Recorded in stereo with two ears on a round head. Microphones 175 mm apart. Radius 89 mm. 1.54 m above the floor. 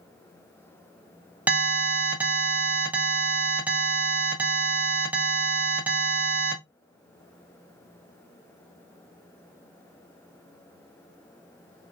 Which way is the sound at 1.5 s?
10° right (ahead or behind).